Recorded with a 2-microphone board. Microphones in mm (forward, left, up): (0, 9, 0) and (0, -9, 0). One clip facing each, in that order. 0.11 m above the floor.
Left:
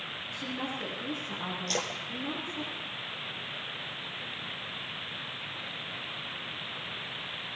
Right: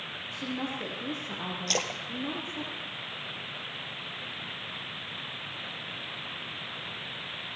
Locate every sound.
0.3 s a woman speaking: 40° right (ahead or behind), 2.5 m
1.7 s a splash: 25° right (ahead or behind), 1.0 m